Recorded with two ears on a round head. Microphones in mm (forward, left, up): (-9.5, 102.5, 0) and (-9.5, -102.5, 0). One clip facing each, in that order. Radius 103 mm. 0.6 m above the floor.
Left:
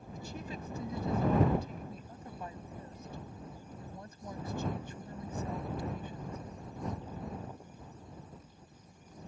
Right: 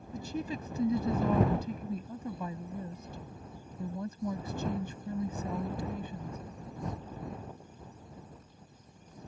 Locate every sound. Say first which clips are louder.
0.1 s a woman speaking: right 7 dB; 65° right (ahead or behind)